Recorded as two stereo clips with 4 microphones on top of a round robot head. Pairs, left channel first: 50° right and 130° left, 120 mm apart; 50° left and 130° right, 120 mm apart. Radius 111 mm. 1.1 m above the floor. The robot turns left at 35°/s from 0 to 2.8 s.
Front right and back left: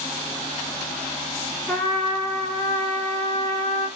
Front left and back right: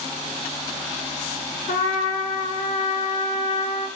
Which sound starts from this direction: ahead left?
A trumpet, at 1.7 s.